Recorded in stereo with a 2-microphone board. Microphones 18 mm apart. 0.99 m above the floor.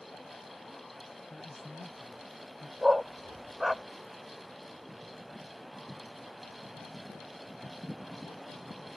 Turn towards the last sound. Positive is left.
turn(degrees=-15)  # may be behind; listen again after turning